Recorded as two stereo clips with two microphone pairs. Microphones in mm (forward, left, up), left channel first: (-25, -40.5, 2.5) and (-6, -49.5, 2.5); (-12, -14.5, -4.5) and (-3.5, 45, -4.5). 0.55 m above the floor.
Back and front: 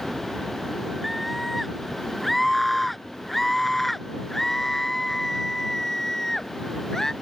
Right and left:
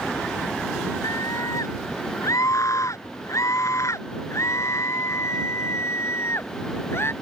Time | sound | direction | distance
1.0 | a scream | 115° right | ?